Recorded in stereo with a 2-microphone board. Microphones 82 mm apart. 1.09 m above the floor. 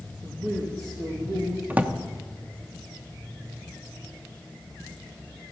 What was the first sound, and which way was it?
A man speaking, 40° right (ahead or behind).